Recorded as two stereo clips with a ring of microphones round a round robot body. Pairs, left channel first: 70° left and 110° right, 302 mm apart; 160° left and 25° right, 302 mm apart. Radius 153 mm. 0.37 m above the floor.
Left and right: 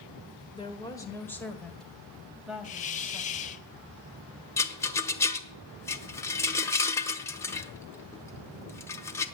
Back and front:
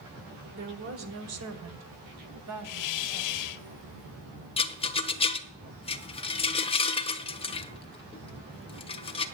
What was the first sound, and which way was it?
A woman speaking, 5° left.